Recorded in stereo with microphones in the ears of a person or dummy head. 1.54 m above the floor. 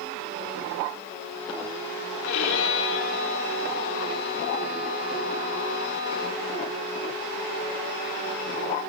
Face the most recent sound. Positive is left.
turn(degrees=80)